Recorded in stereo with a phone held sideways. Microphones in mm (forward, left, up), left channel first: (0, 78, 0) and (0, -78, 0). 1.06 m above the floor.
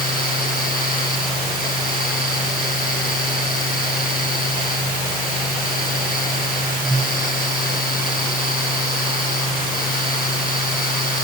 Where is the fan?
65° left (ahead or behind), 5.5 m.